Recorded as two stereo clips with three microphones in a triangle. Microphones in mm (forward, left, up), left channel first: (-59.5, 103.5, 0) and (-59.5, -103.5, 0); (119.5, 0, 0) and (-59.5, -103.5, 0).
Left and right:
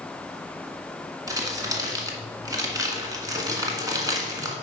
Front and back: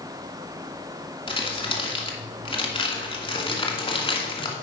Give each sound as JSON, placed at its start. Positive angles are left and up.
{"t": 1.3, "sound": "crumpling", "azimuth_deg": -25, "distance_m": 1.6}